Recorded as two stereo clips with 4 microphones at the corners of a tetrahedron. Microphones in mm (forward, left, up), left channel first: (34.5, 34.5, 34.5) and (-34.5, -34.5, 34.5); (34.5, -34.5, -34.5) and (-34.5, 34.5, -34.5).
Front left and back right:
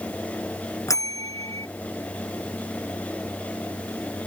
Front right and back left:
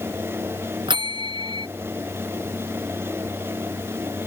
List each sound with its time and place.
0.9 s a bell: 100° left